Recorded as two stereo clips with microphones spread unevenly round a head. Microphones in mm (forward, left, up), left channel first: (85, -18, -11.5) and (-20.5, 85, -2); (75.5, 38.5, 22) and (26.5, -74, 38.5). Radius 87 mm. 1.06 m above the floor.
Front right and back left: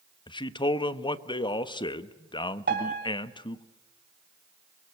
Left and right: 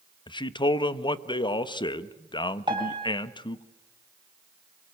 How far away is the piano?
About 3 m.